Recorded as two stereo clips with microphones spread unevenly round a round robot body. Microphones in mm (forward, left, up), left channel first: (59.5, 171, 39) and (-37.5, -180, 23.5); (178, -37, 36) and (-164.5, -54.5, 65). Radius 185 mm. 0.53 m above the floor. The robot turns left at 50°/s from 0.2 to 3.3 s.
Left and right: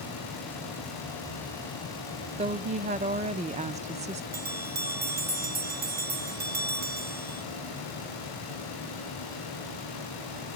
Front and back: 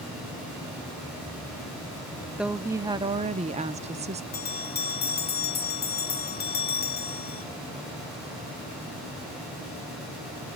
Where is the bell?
50° right, 1.9 m.